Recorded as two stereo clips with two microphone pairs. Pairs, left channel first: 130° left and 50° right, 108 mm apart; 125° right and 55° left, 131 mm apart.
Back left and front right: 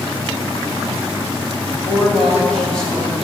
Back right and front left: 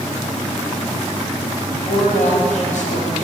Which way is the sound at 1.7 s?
155° right.